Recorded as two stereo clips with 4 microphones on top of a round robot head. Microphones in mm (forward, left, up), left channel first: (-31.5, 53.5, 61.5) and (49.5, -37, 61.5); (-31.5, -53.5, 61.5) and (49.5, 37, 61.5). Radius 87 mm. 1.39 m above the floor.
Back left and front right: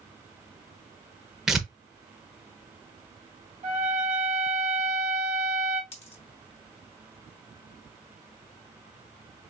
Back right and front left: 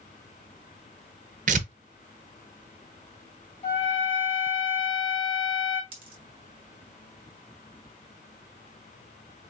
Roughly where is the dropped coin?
Left.